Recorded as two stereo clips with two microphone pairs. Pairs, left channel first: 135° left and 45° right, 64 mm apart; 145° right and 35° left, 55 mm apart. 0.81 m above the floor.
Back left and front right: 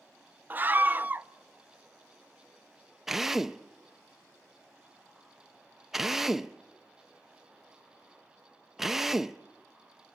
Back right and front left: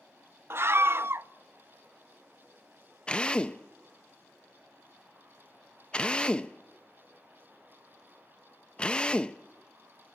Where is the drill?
125° right, 0.6 m.